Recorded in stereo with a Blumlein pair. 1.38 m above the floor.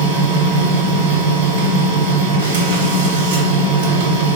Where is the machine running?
60° right, 1.0 m.